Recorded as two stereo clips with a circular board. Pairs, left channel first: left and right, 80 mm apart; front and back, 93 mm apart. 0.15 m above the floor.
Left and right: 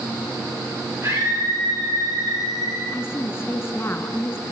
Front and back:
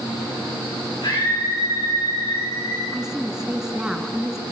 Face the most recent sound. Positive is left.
turn(degrees=100)